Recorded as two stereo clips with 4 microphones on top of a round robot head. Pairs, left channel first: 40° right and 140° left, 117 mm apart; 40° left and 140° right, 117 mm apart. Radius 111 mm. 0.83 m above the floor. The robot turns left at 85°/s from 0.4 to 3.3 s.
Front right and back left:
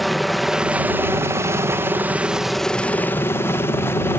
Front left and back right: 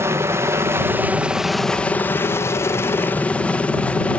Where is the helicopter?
130° right; by 4.2 s 20° right.